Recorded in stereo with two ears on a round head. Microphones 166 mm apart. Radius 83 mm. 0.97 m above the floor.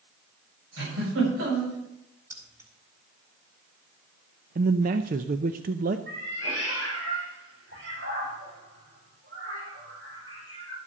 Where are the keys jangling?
15° right (ahead or behind), 4.5 m.